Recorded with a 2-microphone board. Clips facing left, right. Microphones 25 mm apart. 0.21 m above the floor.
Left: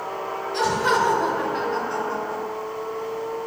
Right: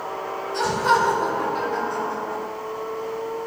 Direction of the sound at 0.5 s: 35° left (ahead or behind).